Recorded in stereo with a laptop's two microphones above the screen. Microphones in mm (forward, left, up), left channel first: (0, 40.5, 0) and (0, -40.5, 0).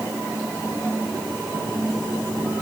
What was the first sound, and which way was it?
Only background noise.